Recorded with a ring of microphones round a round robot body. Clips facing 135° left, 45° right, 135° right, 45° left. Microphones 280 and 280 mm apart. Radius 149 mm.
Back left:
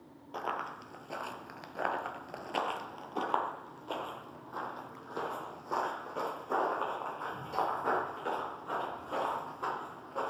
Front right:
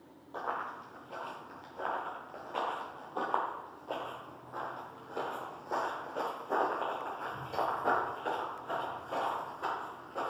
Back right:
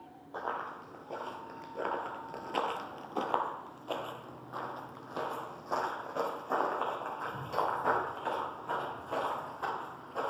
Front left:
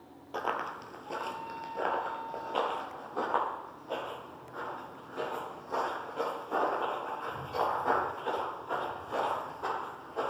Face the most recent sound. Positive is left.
turn(degrees=-140)